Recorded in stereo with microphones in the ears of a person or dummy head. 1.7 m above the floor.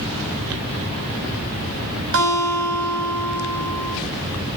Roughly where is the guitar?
Right.